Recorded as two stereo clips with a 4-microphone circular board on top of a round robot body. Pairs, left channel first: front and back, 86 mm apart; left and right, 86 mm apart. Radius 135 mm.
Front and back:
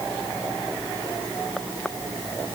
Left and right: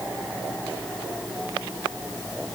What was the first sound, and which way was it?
Only background noise.